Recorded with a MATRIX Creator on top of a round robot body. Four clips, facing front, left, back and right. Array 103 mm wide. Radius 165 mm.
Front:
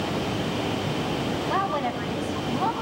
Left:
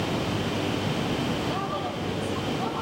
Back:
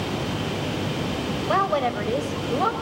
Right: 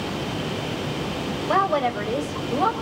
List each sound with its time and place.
1.5 s a woman speaking: 135° right, 5 m